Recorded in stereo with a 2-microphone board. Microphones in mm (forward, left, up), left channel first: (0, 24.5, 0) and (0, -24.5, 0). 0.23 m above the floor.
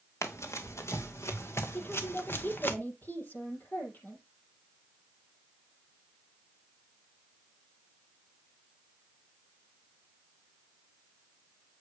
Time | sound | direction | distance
0.2 | running footsteps | 85° left | 2 m
1.7 | a woman speaking | 45° left (ahead or behind) | 6 m